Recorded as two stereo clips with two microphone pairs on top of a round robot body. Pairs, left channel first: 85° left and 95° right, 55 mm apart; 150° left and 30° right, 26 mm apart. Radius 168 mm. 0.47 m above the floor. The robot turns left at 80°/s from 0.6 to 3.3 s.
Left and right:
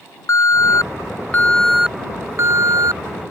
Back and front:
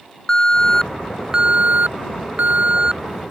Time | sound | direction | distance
0.3 | an alarm | 90° left | ?